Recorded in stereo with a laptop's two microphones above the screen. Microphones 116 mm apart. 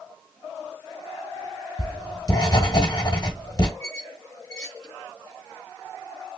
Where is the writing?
40° left (ahead or behind), 2 m.